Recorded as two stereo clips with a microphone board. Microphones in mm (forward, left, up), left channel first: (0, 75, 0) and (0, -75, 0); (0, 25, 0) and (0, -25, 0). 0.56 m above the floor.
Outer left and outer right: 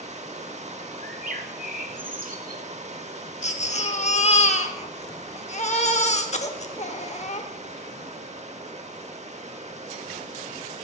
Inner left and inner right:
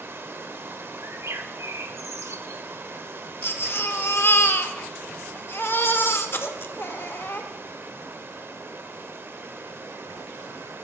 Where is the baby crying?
50° left (ahead or behind), 0.8 m.